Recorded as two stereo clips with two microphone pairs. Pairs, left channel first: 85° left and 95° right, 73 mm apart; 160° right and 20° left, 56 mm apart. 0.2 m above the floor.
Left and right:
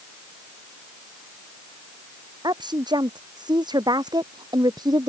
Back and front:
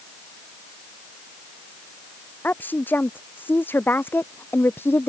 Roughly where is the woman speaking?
Right.